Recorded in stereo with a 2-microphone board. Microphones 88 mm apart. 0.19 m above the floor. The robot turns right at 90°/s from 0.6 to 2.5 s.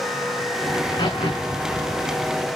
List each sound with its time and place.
0.7 s a crack: 35° left (ahead or behind), 6 m; by 2.5 s 10° right (ahead or behind), 6 m